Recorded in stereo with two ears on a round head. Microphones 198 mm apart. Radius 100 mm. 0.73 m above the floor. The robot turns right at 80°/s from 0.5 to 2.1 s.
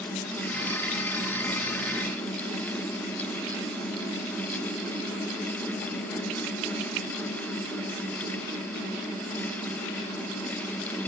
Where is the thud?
No thud in this recording.